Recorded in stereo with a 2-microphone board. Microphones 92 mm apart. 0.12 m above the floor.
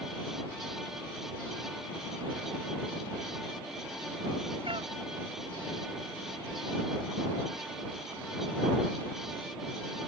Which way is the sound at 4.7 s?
65° right (ahead or behind).